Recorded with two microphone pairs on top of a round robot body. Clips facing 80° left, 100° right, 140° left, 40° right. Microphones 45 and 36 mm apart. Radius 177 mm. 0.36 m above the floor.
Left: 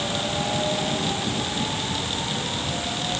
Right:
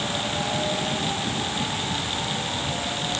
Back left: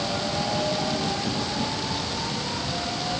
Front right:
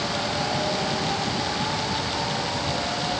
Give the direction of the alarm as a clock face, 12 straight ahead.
No alarm in this recording.